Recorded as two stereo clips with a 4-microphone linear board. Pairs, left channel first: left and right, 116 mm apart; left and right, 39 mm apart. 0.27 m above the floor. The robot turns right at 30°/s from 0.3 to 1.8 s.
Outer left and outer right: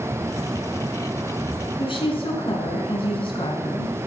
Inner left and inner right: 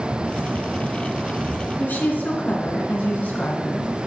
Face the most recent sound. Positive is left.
turn(degrees=50)  # may be behind; listen again after turning